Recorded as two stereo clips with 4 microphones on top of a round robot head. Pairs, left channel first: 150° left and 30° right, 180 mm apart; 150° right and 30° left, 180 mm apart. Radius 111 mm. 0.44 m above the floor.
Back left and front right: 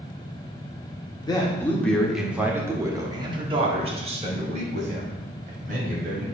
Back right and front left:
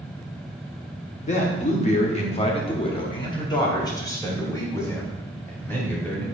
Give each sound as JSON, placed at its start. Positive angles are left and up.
{"t": 1.2, "sound": "a man speaking", "azimuth_deg": -160, "distance_m": 1.1}